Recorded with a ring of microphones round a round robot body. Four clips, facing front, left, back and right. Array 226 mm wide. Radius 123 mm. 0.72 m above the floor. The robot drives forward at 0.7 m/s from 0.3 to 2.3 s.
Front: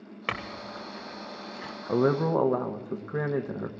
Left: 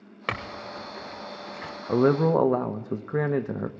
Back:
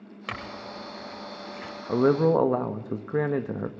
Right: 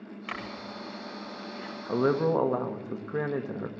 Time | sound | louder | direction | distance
0.3 | a clink | left 6 dB, front 1 dB | 70° left | 1.9 m
1.9 | a man speaking | left 4 dB, back 3 dB | 95° left | 1.0 m